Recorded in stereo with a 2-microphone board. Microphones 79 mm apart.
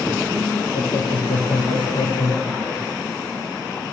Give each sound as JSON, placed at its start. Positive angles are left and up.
{"t": 0.7, "sound": "laughter", "side_deg": 70, "distance_m": 5.5}